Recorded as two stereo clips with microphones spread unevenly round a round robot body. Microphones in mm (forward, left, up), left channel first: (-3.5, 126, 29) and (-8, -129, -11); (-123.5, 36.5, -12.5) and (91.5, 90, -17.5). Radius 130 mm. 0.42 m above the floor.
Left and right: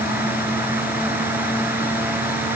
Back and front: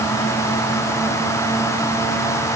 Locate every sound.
Only background noise.